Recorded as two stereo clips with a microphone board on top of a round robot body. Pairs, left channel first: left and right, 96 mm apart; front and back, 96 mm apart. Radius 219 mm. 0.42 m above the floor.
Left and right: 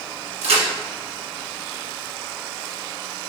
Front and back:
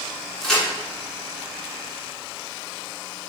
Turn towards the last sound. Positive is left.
turn(degrees=-85)